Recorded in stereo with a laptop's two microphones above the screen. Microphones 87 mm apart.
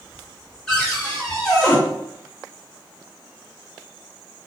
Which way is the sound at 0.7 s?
10° left (ahead or behind).